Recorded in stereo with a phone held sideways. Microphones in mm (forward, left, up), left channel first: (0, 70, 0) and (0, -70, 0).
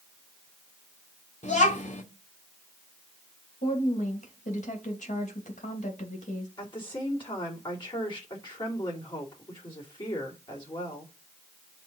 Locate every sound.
1.4 s a child speaking: 55° left (ahead or behind), 1.8 m
3.6 s a woman speaking: 60° left (ahead or behind), 2.5 m
6.6 s a woman speaking: 35° left (ahead or behind), 2.5 m